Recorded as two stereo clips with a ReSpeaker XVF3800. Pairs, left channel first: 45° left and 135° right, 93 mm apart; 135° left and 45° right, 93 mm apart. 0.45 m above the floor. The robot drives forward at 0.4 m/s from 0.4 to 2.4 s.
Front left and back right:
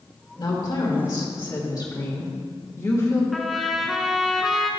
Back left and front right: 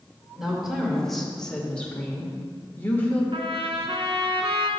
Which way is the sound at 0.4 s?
40° left.